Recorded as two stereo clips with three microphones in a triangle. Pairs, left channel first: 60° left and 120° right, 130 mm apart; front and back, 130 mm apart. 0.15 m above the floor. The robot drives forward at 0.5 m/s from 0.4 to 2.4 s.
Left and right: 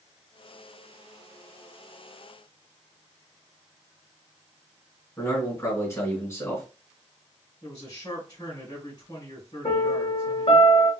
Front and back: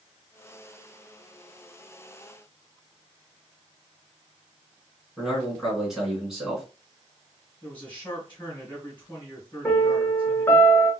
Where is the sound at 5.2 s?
100° left, 1.8 m.